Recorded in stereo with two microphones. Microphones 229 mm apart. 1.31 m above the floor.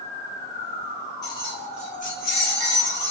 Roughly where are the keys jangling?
Centre.